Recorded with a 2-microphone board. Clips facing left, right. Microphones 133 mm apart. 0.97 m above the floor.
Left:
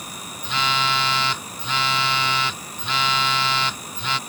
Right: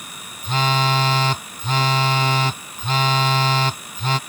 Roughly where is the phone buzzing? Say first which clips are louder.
Right 4 dB; right.